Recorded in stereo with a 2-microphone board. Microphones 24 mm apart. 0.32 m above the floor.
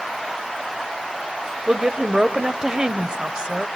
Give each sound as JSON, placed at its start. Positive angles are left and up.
{"t": 1.7, "sound": "a woman speaking", "side_deg": -30, "distance_m": 1.0}